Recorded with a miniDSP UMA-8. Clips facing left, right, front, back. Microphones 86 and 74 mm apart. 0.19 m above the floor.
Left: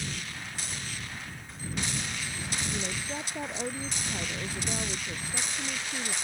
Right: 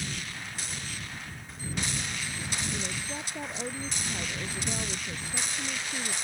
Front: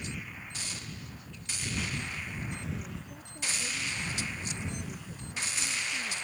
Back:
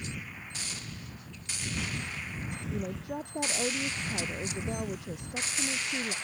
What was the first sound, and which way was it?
A woman speaking, 165° left.